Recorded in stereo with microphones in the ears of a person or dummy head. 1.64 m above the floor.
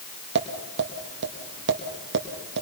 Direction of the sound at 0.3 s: 60° right (ahead or behind).